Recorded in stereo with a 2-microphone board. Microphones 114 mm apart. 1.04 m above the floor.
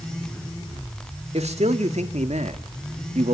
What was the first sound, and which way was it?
A man speaking, 65° right (ahead or behind).